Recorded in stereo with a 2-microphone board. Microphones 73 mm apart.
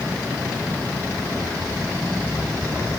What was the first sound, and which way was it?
Only background noise.